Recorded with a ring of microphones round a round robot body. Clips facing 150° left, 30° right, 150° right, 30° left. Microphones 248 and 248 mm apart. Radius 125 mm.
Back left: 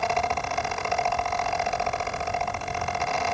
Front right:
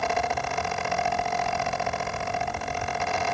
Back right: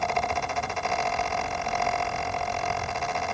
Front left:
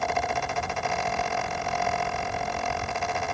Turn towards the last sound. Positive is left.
No sound to turn to.